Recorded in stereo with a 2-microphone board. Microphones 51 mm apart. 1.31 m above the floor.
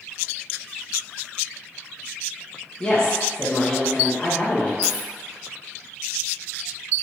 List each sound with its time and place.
2.8 s a woman speaking: 15° left (ahead or behind), 1.0 m
4.8 s a dropped coin: 10° left (ahead or behind), 0.8 m